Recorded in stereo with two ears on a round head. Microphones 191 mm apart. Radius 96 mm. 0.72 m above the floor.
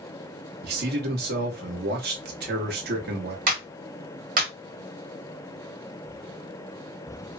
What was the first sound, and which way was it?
A man speaking, 50° right (ahead or behind).